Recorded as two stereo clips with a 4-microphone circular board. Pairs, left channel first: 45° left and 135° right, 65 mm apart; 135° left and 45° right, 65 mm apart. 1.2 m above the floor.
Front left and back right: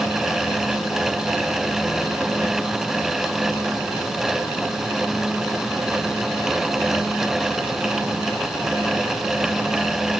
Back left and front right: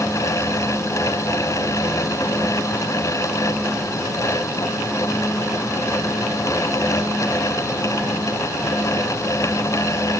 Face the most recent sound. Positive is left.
No sound to turn to.